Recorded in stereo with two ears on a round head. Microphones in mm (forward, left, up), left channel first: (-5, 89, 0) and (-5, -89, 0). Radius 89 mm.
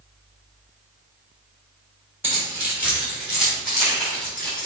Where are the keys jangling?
10° right (ahead or behind), 3.5 m; by 4.7 s 5° left (ahead or behind), 4.5 m.